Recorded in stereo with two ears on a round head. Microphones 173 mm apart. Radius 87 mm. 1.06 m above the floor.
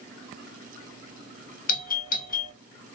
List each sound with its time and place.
1.7 s a doorbell: 45° left (ahead or behind), 1.4 m